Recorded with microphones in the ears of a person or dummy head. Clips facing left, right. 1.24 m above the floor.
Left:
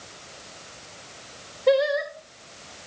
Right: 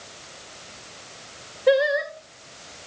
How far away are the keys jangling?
No keys jangling in this recording.